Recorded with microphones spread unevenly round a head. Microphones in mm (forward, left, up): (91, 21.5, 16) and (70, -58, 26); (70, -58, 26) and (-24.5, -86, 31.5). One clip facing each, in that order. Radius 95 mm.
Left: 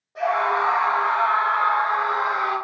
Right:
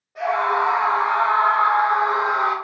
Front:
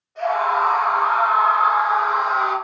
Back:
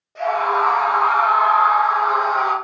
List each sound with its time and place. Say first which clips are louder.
0.1 s a scream: right 1 dB, back 1 dB; 155° left, 0.8 m; by 2.5 s 120° right, 1.8 m